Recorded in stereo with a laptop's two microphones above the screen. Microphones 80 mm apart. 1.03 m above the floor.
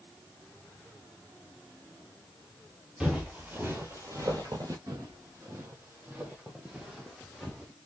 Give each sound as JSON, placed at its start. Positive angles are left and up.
{"t": 3.0, "sound": "footsteps", "side_deg": -15, "distance_m": 1.3}
{"t": 4.9, "sound": "footsteps", "side_deg": -45, "distance_m": 1.8}